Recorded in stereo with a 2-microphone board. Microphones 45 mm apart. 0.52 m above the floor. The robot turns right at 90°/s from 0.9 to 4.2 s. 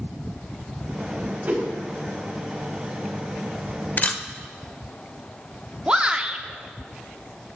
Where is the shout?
20° right (ahead or behind), 0.7 m.